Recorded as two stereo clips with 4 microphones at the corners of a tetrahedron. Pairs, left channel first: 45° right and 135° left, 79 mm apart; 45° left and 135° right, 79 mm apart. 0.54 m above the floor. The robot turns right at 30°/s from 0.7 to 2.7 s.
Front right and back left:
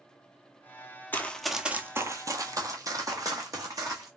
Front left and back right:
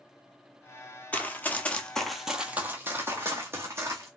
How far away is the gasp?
I don't hear a gasp.